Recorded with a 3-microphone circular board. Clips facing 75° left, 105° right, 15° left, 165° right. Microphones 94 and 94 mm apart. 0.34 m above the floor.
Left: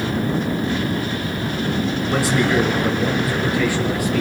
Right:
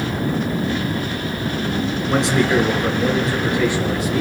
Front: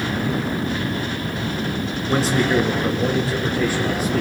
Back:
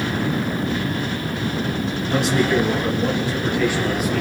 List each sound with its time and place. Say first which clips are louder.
2.1 s a man speaking: right 2 dB, even; 35° right, 3.5 m; by 4.2 s 40° right, 6 m